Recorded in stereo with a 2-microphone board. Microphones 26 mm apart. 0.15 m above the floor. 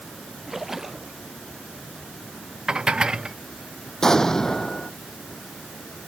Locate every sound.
0.5 s a splash: 10° right (ahead or behind)
2.7 s dishes clattering: 30° right (ahead or behind)
4.0 s an explosion: 20° left (ahead or behind)